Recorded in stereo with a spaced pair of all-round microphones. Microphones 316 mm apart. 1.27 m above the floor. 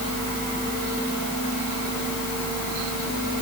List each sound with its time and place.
Only background noise.